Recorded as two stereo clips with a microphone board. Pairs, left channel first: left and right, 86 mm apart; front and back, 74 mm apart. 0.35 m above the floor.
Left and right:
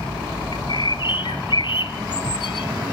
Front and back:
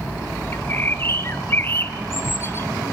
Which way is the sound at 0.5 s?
60° left.